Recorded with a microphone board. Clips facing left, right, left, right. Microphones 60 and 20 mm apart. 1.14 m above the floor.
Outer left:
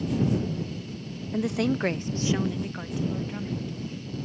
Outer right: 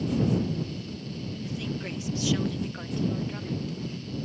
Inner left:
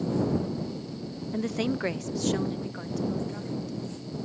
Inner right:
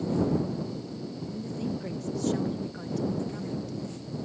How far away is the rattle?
No rattle in this recording.